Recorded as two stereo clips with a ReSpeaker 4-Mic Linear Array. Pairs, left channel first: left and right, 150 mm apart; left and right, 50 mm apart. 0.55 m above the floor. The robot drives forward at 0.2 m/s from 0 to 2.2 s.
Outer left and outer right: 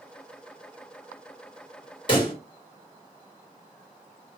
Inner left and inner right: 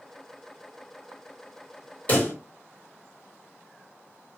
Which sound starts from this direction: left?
A pop, at 2.1 s.